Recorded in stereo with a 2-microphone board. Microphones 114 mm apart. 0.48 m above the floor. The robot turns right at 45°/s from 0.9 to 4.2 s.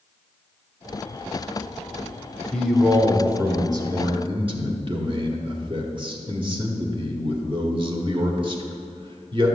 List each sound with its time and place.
2.5 s a man speaking: 170° left, 1.5 m; by 9.6 s 115° right, 1.5 m